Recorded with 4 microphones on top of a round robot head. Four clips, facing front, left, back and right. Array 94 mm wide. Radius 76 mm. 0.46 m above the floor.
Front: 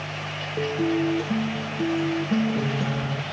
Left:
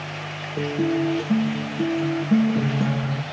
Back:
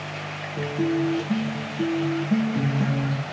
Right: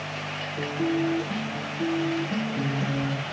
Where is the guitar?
115° left, 3 m.